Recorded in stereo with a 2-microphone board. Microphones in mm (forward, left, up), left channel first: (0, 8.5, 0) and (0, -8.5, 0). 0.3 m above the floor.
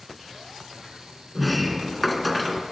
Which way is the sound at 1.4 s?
Centre (ahead or behind).